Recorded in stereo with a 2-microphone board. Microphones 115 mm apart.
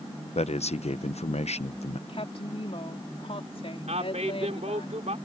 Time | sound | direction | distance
0.3 | a man speaking | 75° left (ahead or behind) | ?
2.1 | a woman speaking | 60° left (ahead or behind) | ?
3.9 | a woman speaking | 85° right | ?